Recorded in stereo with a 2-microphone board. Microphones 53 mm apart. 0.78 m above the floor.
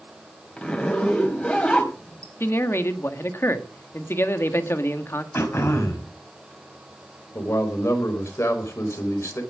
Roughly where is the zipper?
Left.